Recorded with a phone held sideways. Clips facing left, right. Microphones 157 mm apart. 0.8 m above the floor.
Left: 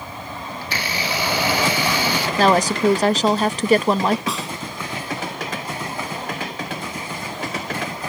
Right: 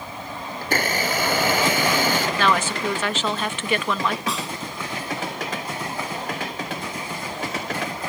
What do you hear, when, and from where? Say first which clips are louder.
0.6 s a blender: right 5 dB; 50° right (ahead or behind)
2.4 s a woman speaking: left 10 dB; 40° left (ahead or behind)
4.3 s a snare drum: left 1 dB; centre (ahead or behind)